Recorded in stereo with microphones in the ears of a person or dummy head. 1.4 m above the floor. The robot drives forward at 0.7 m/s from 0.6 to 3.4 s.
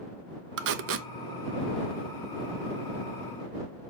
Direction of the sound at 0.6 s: 60° right (ahead or behind).